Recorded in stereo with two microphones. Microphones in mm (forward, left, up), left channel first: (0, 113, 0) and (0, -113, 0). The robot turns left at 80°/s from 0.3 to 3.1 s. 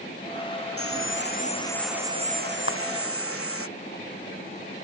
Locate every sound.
0.8 s sawing: 90° left; by 3.7 s 100° right
2.7 s a clap: 65° left (ahead or behind); by 2.8 s 55° left (ahead or behind)